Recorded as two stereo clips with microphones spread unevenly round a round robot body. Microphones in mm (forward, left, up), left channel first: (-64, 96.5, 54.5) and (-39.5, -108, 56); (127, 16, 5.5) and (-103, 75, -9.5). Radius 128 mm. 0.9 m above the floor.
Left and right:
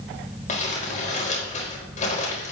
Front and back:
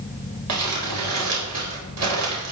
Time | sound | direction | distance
0.5 | crumpling | 150° left | 4 m